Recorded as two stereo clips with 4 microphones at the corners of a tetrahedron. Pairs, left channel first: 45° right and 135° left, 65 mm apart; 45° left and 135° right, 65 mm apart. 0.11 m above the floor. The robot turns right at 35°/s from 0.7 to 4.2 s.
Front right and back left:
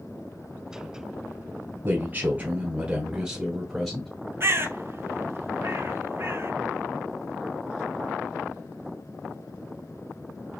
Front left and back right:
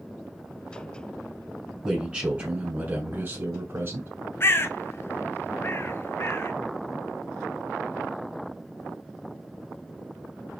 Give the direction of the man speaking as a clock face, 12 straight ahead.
7 o'clock.